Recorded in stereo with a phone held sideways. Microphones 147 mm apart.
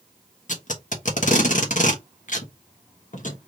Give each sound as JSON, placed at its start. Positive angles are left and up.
{"t": 0.5, "sound": "tape being pulled", "side_deg": 60, "distance_m": 1.3}